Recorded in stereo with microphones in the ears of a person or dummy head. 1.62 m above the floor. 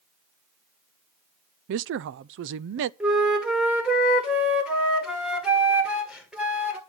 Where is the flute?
Centre (ahead or behind), 1.7 m.